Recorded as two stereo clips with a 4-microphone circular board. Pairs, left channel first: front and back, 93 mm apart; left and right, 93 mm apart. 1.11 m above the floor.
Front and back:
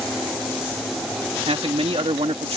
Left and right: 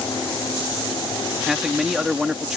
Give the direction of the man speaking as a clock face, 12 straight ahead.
6 o'clock.